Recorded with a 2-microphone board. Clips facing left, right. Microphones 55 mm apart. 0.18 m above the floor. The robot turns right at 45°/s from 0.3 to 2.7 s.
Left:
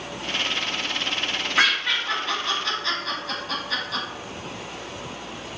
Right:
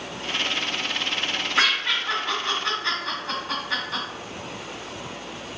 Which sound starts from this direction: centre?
Laughter, at 1.6 s.